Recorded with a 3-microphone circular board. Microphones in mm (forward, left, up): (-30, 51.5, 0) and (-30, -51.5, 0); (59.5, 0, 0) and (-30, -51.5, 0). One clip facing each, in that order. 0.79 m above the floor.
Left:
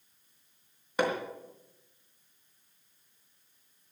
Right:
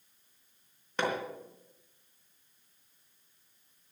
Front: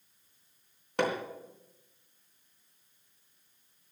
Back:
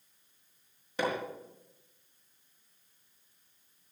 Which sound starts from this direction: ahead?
Hammering, at 1.0 s.